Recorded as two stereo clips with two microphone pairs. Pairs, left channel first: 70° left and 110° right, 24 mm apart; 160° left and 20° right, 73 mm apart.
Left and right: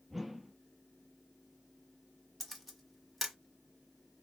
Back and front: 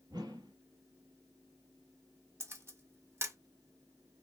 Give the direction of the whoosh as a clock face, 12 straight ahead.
1 o'clock.